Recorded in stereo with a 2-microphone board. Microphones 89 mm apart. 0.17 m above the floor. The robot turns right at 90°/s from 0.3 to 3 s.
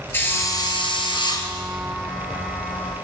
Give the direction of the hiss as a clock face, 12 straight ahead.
11 o'clock.